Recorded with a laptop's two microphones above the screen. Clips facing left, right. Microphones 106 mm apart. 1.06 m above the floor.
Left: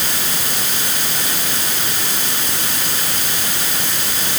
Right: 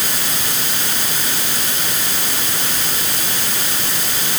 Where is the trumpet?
I don't hear a trumpet.